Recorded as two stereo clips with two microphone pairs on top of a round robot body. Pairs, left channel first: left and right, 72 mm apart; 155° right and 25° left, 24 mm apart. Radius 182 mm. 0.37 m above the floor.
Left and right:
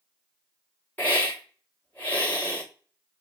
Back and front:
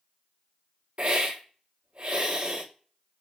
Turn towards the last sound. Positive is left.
turn(degrees=25)